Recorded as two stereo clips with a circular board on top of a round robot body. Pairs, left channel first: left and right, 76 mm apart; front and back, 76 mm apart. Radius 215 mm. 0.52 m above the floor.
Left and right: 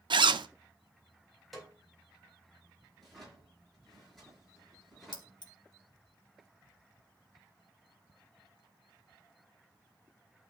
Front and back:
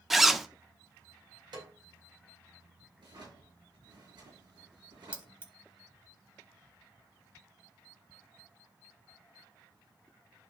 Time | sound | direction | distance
0.1 | a zipper | 95° right | 0.7 m
1.5 | a snare drum | straight behind | 4 m
3.0 | a drawer | straight behind | 6.5 m
5.1 | keys jangling | 110° left | 1.5 m